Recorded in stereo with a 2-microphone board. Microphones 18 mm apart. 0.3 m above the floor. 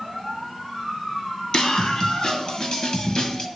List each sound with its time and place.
1.5 s a scream: 55° left (ahead or behind), 2 m; by 3.5 s 50° left (ahead or behind), 1.6 m